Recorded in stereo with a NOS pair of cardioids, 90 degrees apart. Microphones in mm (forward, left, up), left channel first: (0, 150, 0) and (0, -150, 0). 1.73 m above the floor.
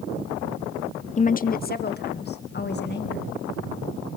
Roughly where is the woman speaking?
Ahead left.